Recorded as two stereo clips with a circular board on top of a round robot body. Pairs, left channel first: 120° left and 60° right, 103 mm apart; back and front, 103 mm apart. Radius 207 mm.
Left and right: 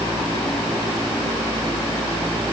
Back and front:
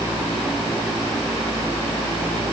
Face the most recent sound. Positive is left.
No sound to turn to.